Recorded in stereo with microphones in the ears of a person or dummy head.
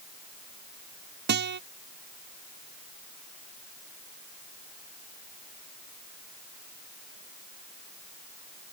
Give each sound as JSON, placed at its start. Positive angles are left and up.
{"t": 1.3, "sound": "a guitar", "side_deg": -50}